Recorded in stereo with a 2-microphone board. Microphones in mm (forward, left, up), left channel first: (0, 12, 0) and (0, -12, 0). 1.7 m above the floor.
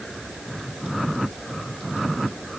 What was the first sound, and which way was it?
Only background noise.